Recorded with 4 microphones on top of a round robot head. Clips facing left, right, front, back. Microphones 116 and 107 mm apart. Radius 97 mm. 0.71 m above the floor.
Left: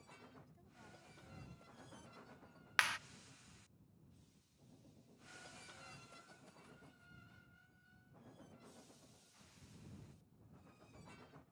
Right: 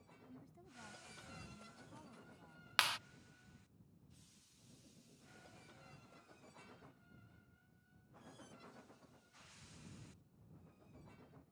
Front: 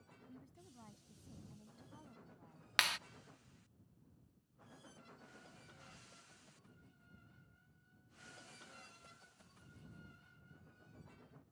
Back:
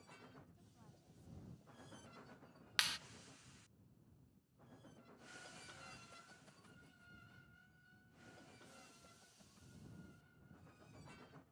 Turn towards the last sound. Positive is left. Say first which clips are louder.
# even, front 6 dB
turn(degrees=-20)